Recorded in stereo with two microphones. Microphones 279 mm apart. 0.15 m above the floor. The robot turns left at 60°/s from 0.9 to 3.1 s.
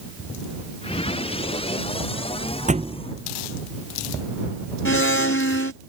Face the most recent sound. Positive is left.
turn(degrees=45)  # may be behind; listen again after turning